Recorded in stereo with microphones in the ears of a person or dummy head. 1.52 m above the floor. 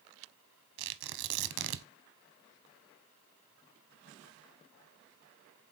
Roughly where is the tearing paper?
Right.